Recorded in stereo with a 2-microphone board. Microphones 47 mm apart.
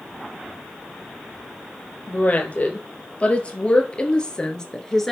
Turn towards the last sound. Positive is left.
turn(degrees=10)  # may be behind; listen again after turning